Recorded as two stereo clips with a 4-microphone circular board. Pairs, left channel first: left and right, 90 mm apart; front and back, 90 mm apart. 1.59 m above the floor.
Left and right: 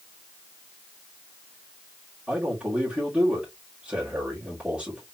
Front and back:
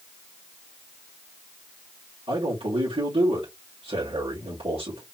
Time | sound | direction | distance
2.3 | a man speaking | 165° right | 2.5 m